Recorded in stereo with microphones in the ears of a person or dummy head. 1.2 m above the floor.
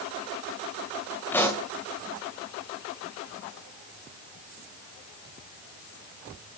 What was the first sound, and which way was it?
A pop, 10° left (ahead or behind).